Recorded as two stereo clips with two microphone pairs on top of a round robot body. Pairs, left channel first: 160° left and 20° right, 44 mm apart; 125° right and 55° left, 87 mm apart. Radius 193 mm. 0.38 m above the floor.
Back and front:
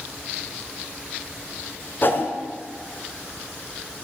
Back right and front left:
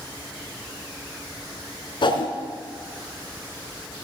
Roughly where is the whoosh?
Behind.